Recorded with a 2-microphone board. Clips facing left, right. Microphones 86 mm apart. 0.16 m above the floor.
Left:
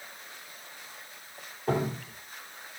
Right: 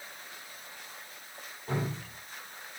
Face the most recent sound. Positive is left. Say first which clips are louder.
# left 6 dB
turn(degrees=65)  # may be behind; listen again after turning